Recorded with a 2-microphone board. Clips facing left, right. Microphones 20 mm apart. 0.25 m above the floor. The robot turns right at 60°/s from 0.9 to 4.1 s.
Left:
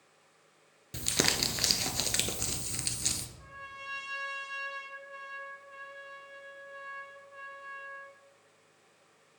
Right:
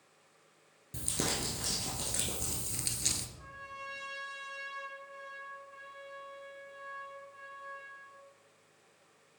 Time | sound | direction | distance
0.9 | crumpling | 50° left | 0.7 m
3.4 | a trumpet | 10° right | 1.1 m